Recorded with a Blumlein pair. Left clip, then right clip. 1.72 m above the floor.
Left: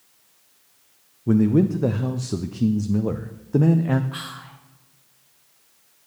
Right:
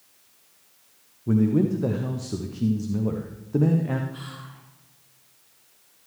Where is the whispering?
50° left, 1.7 m.